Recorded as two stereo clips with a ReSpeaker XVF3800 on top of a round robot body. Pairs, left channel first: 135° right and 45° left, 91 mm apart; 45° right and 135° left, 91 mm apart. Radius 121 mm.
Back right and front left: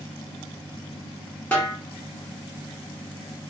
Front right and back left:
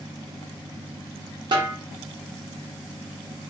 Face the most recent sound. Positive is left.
turn(degrees=155)